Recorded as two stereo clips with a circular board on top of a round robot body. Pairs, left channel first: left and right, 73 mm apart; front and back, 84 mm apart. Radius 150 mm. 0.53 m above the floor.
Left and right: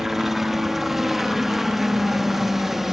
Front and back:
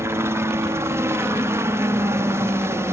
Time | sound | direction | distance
0.0 | a helicopter | 175° right | ?